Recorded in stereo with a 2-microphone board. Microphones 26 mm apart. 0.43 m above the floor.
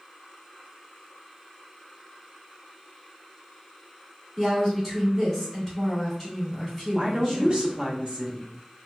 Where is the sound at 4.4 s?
5° right (ahead or behind), 1.6 m.